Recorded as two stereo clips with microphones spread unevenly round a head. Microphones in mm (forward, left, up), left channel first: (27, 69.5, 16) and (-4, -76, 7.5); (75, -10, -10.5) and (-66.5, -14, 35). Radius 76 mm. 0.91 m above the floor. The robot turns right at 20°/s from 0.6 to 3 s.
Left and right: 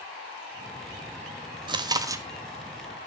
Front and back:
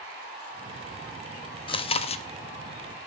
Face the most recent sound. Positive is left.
turn(degrees=-15)